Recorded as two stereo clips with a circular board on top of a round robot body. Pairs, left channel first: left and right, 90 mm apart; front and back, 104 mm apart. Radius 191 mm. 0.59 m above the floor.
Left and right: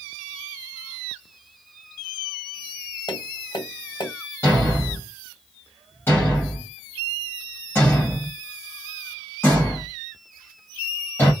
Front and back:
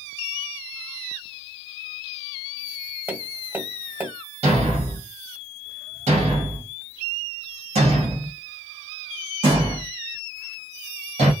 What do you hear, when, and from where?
3.1 s tapping: 110° left, 1.8 m
4.4 s a thud: 160° left, 1.2 m